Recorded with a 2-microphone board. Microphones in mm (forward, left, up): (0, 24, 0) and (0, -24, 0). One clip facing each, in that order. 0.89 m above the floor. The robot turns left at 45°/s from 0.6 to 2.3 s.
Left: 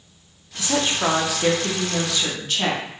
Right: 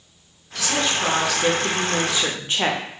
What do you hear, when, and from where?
0.6 s a woman speaking: 45° left, 0.5 m; by 2.8 s 35° right, 0.5 m